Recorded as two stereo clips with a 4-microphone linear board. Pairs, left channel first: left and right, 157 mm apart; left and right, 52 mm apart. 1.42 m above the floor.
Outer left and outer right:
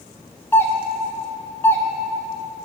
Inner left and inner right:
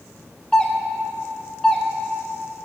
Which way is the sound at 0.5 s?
15° left (ahead or behind).